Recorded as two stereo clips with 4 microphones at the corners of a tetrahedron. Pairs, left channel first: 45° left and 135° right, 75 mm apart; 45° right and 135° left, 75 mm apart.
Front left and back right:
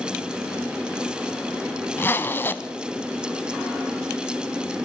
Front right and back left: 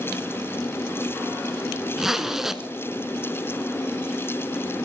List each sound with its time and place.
2.0 s a zipper: 60° left, 0.6 m